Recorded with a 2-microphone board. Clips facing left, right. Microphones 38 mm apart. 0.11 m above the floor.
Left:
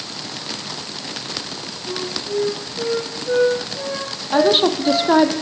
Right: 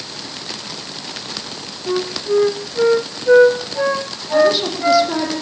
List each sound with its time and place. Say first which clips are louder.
1.9 s a flute: right 7 dB; 50° right (ahead or behind), 2.5 m
4.3 s a woman speaking: right 1 dB; 40° left (ahead or behind), 4 m